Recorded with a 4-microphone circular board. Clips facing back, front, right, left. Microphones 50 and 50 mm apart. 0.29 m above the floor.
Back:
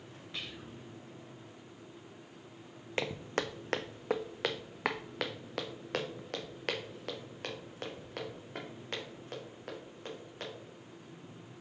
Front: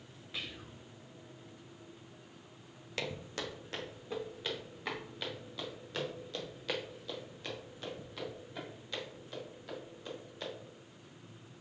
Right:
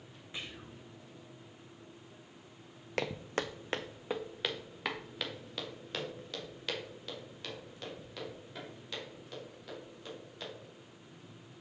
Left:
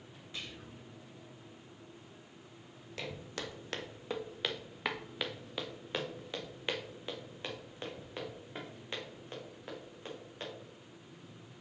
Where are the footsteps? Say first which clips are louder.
Back 5 dB, right 7 dB; 120° right, 0.7 m; by 10.4 s 145° left, 4 m.